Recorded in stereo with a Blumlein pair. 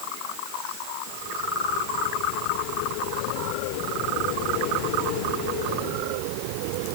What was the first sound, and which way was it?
Only background noise.